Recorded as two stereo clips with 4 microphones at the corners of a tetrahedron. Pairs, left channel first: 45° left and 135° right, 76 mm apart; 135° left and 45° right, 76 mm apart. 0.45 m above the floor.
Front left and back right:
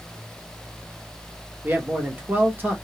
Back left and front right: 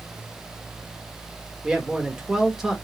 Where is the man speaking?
115° right, 0.7 m.